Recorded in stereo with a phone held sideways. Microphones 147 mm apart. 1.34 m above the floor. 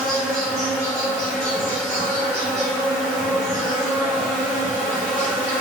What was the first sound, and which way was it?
An insect, 50° left (ahead or behind).